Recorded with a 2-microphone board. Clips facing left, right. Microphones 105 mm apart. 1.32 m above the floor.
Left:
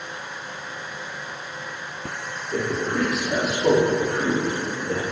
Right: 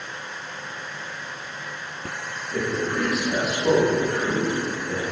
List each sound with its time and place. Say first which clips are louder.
2.5 s a man speaking: left 1 dB; 70° left (ahead or behind), 3.5 m; by 5.0 s 60° left (ahead or behind), 1.8 m